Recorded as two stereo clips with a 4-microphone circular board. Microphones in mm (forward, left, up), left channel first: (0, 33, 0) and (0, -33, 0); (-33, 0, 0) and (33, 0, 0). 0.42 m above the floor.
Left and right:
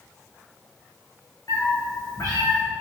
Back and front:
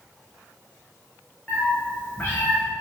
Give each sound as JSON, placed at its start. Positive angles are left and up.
{"t": 1.5, "sound": "a cat meowing", "azimuth_deg": 110, "distance_m": 3.0}